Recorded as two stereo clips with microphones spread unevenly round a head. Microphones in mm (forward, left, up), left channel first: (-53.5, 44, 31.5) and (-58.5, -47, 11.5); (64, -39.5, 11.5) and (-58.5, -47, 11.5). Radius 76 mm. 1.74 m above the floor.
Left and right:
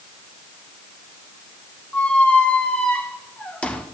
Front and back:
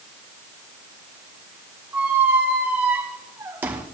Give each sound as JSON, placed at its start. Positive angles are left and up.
{"t": 1.9, "sound": "a squeak", "azimuth_deg": 120, "distance_m": 0.9}